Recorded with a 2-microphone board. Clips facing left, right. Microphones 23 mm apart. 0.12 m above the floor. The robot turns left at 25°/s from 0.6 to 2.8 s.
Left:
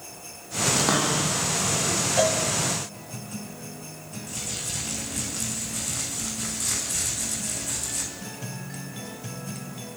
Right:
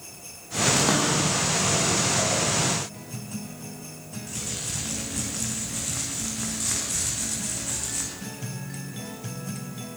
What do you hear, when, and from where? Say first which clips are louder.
0.8 s a cupboard door: left 1 dB; 10° left (ahead or behind), 6 m; by 1.9 s 20° right (ahead or behind), 6 m
2.2 s a cowbell: left 3 dB; 45° left (ahead or behind), 7 m; by 2.4 s 40° left (ahead or behind), 7 m
4.3 s crumpling: even; 10° right (ahead or behind), 9.5 m